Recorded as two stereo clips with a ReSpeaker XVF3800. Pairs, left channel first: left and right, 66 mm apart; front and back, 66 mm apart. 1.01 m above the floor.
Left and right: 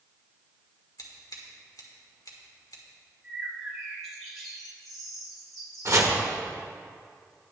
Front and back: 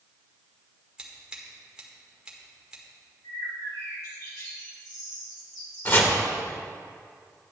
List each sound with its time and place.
1.0 s scissors: 105° left, 1.6 m
3.2 s a bird: straight ahead, 3 m
5.8 s chopping: 55° right, 1.2 m